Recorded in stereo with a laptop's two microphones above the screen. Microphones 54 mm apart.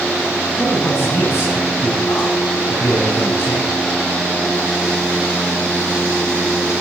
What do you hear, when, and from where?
0.6 s a man speaking: 60° left (ahead or behind), 7.5 m